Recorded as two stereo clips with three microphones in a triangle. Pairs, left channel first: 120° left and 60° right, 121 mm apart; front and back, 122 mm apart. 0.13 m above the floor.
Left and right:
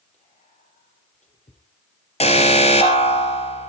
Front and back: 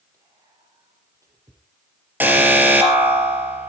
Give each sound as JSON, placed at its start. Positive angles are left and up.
{"t": 0.1, "sound": "whispering", "azimuth_deg": 120, "distance_m": 4.0}
{"t": 2.2, "sound": "an alarm", "azimuth_deg": 105, "distance_m": 3.0}